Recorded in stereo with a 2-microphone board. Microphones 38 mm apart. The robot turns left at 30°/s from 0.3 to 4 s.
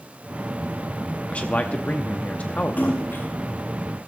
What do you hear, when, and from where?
1.3 s a man speaking: 115° left, 0.8 m; by 3.2 s 60° left, 0.8 m
2.8 s a splash: 50° left (ahead or behind), 4.5 m; by 3.2 s 65° left (ahead or behind), 4.5 m